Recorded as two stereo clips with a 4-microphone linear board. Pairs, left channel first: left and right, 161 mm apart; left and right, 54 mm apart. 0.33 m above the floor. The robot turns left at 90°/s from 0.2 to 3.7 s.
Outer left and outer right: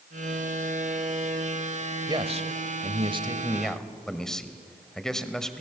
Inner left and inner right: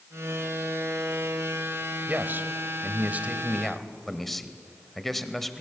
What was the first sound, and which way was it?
A man speaking, 40° right.